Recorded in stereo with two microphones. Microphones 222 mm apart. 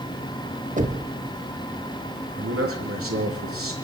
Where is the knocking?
35° right (ahead or behind), 1.4 m.